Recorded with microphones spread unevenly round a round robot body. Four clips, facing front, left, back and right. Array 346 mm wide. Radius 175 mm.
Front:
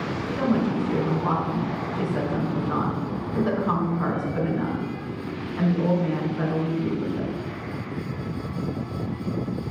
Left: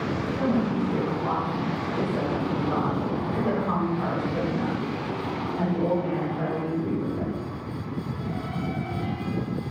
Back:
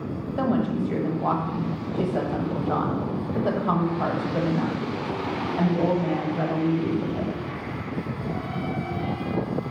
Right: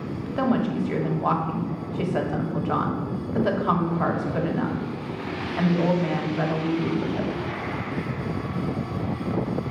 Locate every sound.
0.4 s a woman speaking: 140° right, 1.5 m